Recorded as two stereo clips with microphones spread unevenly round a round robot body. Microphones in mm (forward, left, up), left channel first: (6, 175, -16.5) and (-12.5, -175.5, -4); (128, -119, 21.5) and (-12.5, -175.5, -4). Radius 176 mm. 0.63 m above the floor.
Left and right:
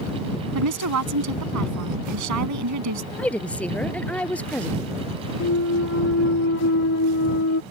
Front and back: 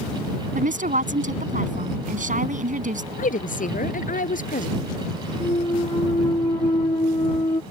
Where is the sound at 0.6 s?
135° right.